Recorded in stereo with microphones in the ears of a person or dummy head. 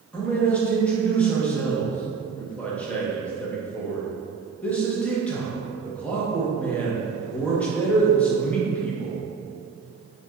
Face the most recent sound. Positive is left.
turn(degrees=5)  # may be behind; listen again after turning